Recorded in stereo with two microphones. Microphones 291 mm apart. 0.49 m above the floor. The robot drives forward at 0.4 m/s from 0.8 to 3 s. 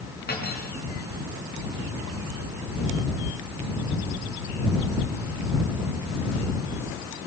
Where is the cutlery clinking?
35° left (ahead or behind), 3.5 m.